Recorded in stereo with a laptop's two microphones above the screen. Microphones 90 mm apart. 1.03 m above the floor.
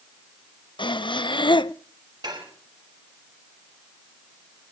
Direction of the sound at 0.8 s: 65° left (ahead or behind).